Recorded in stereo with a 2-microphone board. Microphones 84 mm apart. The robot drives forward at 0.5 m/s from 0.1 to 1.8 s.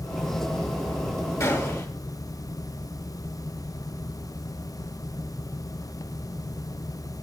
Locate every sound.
1.4 s a gunshot: 35° left (ahead or behind), 3 m; by 1.9 s 40° left (ahead or behind), 3 m